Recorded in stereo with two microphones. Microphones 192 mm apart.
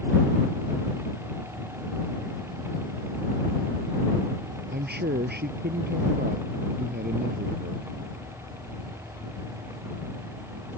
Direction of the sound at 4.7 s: 65° right (ahead or behind).